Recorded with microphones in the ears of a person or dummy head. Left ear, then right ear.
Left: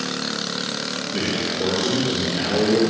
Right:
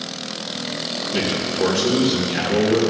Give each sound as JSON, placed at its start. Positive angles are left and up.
{"t": 1.1, "sound": "a man speaking", "side_deg": -40, "distance_m": 2.5}